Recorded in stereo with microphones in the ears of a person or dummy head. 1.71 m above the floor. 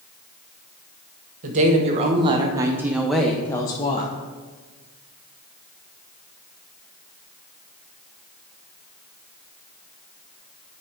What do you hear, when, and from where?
1.4 s a woman speaking: 45° right (ahead or behind), 1.5 m; by 4.1 s 35° left (ahead or behind), 0.9 m